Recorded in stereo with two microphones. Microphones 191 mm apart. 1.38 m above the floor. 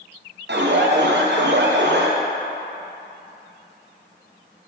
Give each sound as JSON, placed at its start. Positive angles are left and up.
{"t": 0.5, "sound": "an alarm", "side_deg": -70, "distance_m": 0.7}